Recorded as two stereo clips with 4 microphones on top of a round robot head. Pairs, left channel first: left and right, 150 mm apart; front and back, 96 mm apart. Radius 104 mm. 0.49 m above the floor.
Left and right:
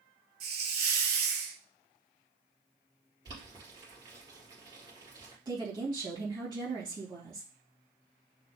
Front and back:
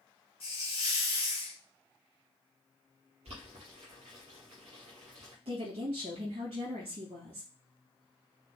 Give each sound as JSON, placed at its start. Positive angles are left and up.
{"t": 0.4, "sound": "a hiss", "azimuth_deg": -55, "distance_m": 0.5}
{"t": 3.2, "sound": "boiling", "azimuth_deg": -150, "distance_m": 3.5}
{"t": 5.5, "sound": "a woman speaking", "azimuth_deg": -150, "distance_m": 3.5}